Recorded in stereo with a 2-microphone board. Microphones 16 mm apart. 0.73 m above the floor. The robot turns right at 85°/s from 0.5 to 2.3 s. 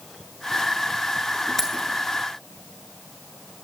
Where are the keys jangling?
25° left (ahead or behind), 7.5 m; by 1.9 s 50° left (ahead or behind), 7.5 m.